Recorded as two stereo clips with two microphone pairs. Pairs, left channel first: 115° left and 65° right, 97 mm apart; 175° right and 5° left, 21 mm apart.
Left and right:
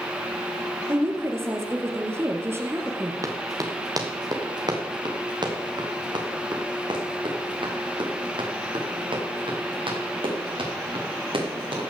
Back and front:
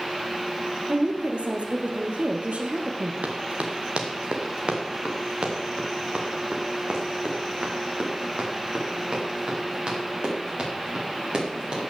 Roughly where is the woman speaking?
Ahead.